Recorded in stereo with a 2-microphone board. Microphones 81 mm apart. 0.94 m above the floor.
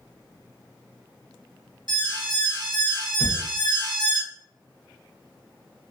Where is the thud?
70° right (ahead or behind), 1.1 m.